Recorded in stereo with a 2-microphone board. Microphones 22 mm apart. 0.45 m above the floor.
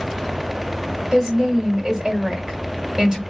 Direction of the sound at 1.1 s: 20° right (ahead or behind).